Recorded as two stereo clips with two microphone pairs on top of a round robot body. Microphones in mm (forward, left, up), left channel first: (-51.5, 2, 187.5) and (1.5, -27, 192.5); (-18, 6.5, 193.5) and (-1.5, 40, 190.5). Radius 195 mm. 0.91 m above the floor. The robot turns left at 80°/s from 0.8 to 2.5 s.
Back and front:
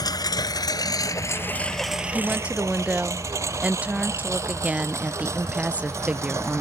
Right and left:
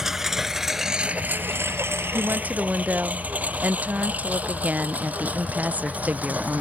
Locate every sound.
0.0 s a lawn mower: 140° left; by 6.6 s 10° left
2.1 s a woman speaking: 65° left; by 6.6 s 35° left